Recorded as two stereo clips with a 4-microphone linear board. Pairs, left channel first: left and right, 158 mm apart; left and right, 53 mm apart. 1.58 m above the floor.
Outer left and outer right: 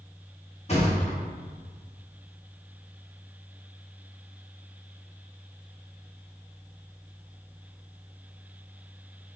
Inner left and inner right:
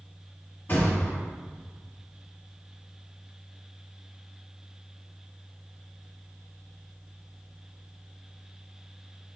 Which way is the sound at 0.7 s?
40° left (ahead or behind).